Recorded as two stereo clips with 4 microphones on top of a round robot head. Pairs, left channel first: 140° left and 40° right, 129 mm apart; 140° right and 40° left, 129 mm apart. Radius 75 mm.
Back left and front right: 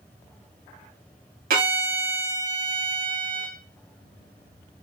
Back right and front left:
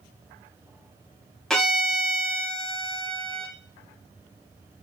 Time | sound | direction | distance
1.5 | a violin | 55° right | 0.7 m